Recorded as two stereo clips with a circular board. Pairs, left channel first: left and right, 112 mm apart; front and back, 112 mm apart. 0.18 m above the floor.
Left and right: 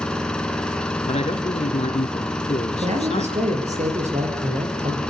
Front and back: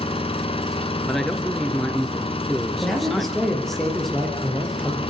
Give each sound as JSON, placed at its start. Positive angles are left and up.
{"t": 0.0, "sound": "an engine running", "azimuth_deg": 10, "distance_m": 1.5}
{"t": 1.0, "sound": "a man speaking", "azimuth_deg": 90, "distance_m": 3.0}
{"t": 2.8, "sound": "a man speaking", "azimuth_deg": -90, "distance_m": 4.5}